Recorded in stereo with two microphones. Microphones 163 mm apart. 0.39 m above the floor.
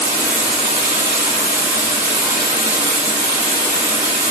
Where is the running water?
15° right (ahead or behind), 5 m.